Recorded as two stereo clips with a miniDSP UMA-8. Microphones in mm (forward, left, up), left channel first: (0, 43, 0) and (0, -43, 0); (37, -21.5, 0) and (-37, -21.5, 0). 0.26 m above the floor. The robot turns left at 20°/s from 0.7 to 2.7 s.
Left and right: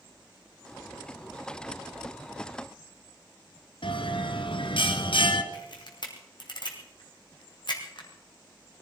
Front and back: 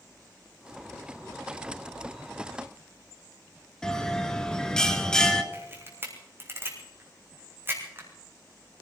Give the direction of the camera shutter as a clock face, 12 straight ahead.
8 o'clock.